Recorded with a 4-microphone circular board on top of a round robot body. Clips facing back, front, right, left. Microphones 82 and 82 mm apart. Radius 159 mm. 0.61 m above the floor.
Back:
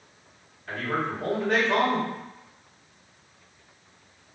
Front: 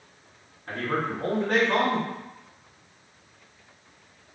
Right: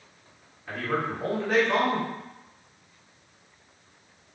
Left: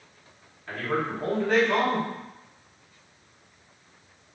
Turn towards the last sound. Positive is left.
turn(degrees=-25)